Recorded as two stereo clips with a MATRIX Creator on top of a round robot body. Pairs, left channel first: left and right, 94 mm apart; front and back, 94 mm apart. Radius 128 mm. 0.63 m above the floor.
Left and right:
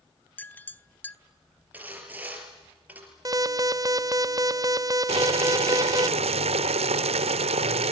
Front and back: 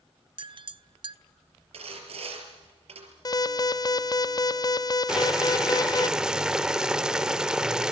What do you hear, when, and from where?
0.4 s a clink: 160° left, 0.8 m
1.7 s sawing: 165° right, 5 m
3.2 s an alarm: 40° right, 0.8 m
5.1 s boiling: 95° right, 1.0 m